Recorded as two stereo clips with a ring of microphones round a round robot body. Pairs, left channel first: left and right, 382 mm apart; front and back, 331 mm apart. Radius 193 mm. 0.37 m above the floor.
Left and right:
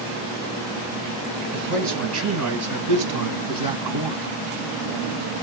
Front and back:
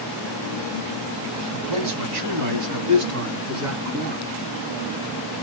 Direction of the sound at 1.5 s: 155° right.